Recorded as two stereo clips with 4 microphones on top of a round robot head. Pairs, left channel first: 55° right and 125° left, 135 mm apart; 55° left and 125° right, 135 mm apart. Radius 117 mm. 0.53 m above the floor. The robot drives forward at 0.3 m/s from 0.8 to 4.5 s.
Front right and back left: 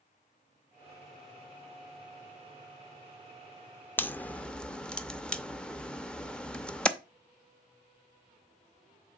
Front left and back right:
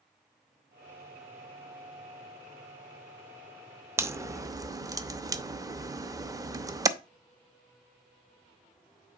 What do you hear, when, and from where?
4.0 s a crack: 100° right, 0.8 m; by 6.9 s 130° right, 0.8 m